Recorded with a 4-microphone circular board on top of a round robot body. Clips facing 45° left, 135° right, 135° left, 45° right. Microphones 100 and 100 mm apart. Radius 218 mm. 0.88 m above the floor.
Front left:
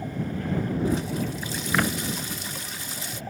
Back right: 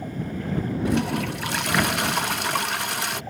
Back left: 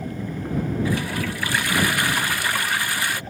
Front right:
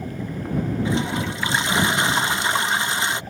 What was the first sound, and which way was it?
A toilet flushing, 115° right.